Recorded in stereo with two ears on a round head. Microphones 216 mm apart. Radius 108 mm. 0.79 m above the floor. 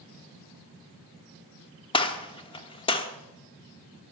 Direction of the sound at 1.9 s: 20° left (ahead or behind).